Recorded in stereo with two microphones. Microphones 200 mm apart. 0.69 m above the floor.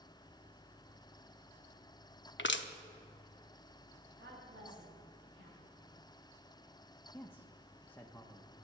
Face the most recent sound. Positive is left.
turn(degrees=10)  # may be behind; listen again after turning